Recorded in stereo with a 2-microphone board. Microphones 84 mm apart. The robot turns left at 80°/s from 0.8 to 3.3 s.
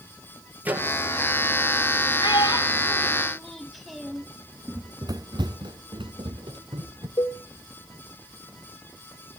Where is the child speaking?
65° left (ahead or behind), 2.5 m; by 4.3 s centre (ahead or behind), 2.5 m.